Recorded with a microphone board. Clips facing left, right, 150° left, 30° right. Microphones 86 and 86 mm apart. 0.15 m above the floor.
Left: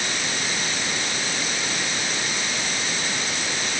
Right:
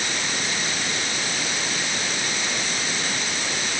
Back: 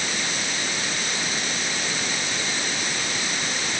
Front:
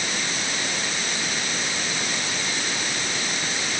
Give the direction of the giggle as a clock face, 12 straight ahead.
I don't hear a giggle.